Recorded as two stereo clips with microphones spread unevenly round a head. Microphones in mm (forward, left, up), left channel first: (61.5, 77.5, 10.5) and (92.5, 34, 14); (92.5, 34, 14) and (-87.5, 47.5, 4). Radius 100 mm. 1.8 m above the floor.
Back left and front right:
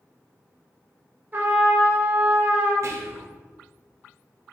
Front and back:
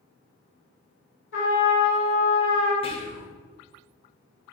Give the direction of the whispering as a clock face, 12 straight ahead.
2 o'clock.